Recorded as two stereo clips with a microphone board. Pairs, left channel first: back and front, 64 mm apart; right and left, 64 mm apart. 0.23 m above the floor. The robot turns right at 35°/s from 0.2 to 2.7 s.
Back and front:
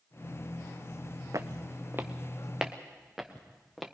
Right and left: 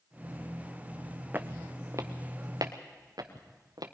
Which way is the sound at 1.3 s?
30° left.